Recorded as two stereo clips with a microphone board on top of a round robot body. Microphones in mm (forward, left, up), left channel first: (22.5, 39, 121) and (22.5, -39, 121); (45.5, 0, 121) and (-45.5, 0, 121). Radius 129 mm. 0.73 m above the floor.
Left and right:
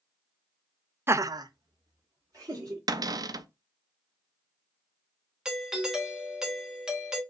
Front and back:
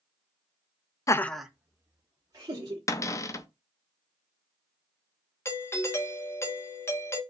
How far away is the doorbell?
About 1.2 m.